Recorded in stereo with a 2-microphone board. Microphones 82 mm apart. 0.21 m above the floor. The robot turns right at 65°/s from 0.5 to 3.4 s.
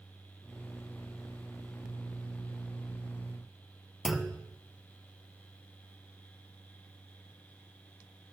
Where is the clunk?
5° right (ahead or behind), 0.7 m.